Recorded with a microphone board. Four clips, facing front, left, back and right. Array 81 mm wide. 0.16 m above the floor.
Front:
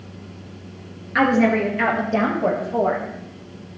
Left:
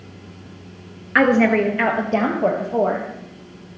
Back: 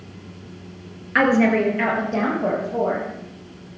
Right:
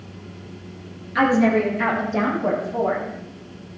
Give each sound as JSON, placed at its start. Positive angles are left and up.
{"t": 1.1, "sound": "a woman speaking", "azimuth_deg": 105, "distance_m": 2.5}